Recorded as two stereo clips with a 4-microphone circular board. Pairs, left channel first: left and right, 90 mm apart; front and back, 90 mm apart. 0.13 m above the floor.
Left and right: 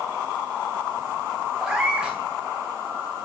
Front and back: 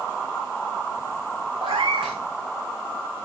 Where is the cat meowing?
170° right, 1.4 m.